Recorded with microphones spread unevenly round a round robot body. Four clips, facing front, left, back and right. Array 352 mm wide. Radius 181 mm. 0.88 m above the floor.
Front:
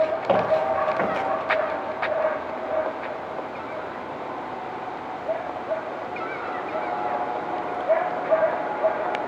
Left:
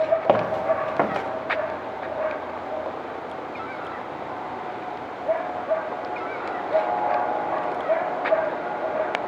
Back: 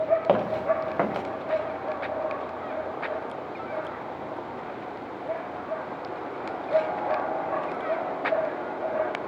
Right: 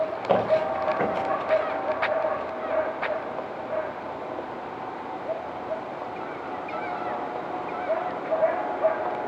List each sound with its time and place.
0.3 s footsteps: 100° left, 7 m